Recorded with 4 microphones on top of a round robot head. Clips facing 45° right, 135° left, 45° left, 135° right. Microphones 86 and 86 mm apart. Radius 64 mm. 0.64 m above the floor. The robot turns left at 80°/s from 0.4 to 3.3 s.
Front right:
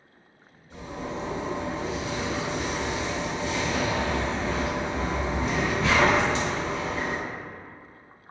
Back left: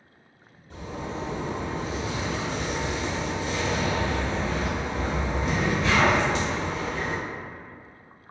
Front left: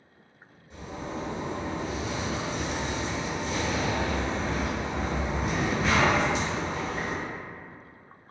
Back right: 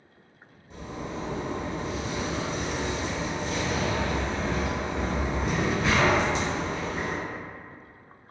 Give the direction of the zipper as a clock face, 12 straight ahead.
6 o'clock.